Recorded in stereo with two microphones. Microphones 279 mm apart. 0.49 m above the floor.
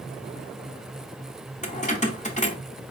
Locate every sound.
1.6 s keys jangling: 25° left (ahead or behind), 0.8 m